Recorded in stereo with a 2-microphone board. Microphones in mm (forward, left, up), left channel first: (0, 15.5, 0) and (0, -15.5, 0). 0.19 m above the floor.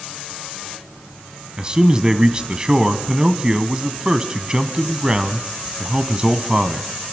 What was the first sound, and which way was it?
A man speaking, 25° right (ahead or behind).